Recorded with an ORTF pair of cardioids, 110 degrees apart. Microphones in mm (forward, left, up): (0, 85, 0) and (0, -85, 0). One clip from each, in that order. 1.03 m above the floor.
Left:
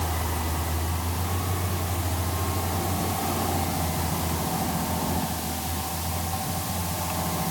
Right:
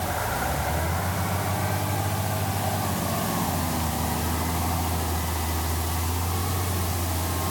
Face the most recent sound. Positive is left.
No sound to turn to.